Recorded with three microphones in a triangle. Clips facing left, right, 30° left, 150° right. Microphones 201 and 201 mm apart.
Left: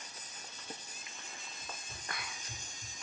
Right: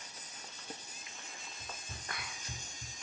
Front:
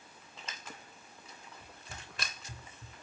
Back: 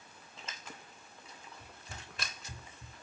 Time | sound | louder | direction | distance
1.6 | running footsteps | even, even | 80° right | 3.5 m